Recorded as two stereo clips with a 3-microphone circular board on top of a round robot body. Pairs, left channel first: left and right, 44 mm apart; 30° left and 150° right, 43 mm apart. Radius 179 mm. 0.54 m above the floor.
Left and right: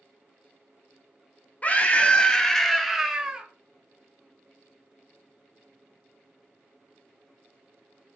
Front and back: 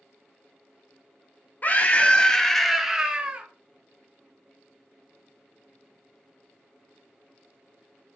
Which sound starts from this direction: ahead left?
A scream, at 1.6 s.